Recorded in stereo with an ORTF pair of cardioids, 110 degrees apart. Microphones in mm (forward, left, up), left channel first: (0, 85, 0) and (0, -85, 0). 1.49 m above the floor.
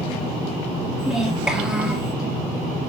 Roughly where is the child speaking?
Ahead.